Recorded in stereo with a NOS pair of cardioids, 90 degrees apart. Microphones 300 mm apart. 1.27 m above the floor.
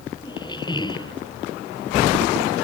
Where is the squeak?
15° left.